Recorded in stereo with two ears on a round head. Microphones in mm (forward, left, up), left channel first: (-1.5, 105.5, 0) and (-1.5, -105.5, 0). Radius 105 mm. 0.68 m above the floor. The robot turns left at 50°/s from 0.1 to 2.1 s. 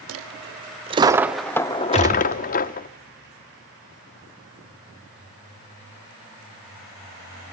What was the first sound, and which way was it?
A dropped coin, 115° right.